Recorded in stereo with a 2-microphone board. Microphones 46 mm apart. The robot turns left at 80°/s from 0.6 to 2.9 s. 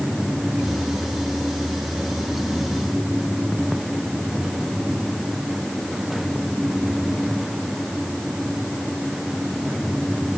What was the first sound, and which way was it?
Only background noise.